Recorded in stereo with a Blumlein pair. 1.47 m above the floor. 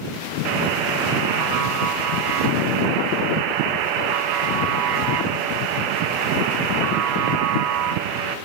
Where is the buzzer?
40° right, 1.6 m.